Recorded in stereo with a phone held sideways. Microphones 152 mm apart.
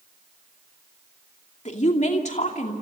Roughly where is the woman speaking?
Left.